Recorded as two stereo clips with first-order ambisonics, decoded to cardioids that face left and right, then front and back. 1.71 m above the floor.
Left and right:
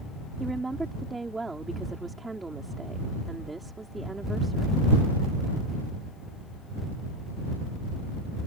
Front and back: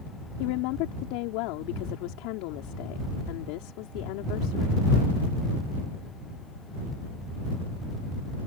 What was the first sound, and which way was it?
A woman speaking, 10° right.